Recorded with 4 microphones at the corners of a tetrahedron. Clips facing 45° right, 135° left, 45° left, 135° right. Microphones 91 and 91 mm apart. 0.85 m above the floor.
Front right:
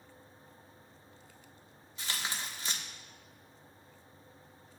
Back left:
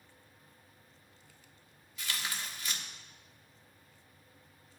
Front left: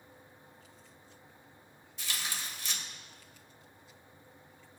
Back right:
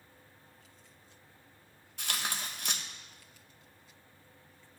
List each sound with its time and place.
2.0 s tearing paper: 105° right, 1.2 m